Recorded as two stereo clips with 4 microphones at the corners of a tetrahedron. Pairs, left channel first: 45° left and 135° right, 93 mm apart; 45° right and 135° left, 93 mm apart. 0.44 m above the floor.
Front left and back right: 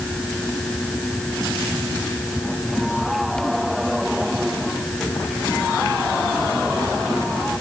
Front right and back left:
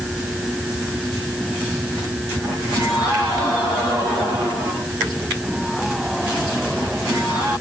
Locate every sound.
Only background noise.